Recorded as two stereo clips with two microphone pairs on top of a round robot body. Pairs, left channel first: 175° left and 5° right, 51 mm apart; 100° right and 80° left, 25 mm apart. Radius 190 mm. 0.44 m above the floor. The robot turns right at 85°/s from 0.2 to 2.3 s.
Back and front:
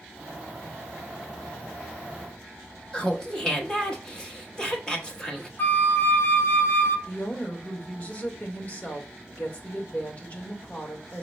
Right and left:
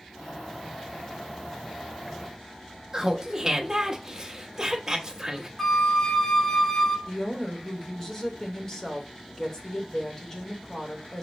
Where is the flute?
165° right, 0.8 m.